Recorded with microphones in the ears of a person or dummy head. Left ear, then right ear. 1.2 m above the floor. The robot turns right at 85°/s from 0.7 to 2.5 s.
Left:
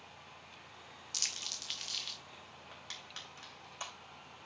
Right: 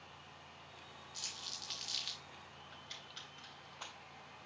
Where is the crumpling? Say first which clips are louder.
Left 7 dB; 60° left (ahead or behind), 1.1 m; by 2.2 s 20° right (ahead or behind), 1.1 m.